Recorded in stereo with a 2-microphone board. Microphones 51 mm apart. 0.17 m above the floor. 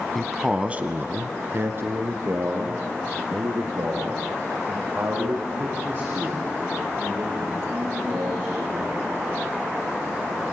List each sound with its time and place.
0.1 s a man speaking: 5° left (ahead or behind), 1.1 m; by 9.0 s 50° right (ahead or behind), 11 m